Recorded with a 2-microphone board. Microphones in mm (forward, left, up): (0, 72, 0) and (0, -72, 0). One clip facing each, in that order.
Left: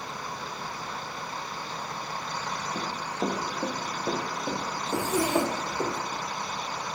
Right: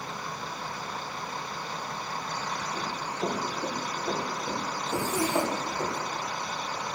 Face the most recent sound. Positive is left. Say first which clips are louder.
# left 2 dB
turn(degrees=60)  # may be behind; listen again after turning